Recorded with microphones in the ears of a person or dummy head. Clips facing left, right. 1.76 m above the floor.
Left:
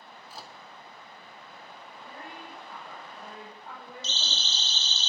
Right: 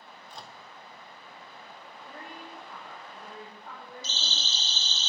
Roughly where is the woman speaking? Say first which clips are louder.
Even; centre.